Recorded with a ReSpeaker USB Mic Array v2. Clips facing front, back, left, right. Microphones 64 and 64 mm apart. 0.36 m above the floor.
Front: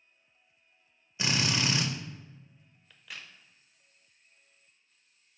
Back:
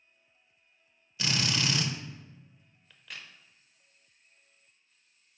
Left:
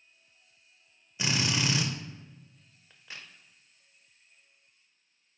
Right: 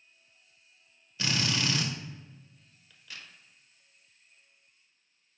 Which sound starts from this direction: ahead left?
A drill, at 1.2 s.